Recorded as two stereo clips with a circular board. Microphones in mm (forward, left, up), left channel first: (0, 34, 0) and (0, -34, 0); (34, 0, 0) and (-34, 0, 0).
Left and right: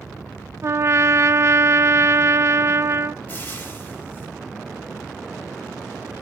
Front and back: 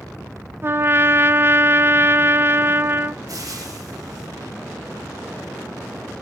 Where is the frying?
155° left, 5 m.